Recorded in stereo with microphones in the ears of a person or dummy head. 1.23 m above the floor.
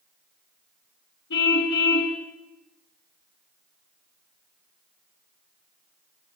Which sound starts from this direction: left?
A car horn, at 1.3 s.